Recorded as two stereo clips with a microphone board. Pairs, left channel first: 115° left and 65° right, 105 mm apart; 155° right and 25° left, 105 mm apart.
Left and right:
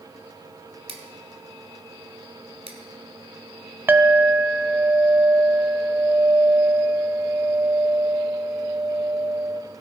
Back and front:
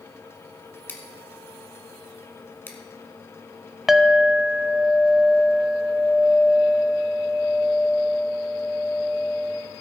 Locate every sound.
0.9 s scissors: 90° right, 1.5 m
3.9 s a clink: 60° right, 0.5 m